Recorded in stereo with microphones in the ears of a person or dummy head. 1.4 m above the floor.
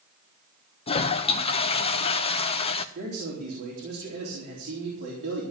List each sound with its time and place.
0.9 s a toilet flushing: 30° left (ahead or behind), 0.6 m
3.0 s a man speaking: 55° right (ahead or behind), 4 m